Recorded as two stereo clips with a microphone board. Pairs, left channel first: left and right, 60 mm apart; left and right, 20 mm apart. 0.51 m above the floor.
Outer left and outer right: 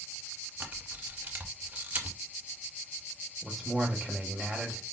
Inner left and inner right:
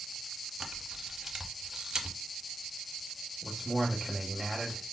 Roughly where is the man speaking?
Centre.